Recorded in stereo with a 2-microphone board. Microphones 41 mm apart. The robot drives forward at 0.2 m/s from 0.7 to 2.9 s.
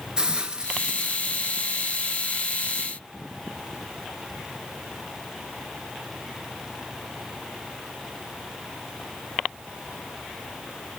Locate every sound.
0.2 s a hiss: 25° right (ahead or behind), 0.7 m; by 1.8 s 20° right (ahead or behind), 0.9 m